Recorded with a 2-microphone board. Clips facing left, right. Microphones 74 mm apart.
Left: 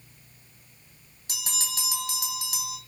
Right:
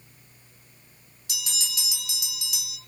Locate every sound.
1.3 s a bell: 40° left (ahead or behind), 2.5 m